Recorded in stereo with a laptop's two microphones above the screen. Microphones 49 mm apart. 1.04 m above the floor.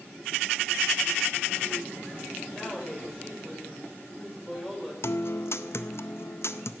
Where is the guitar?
60° left (ahead or behind), 0.5 m.